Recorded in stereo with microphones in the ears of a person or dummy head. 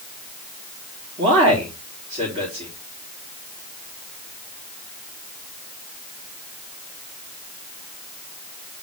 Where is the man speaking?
35° right (ahead or behind), 3.5 m.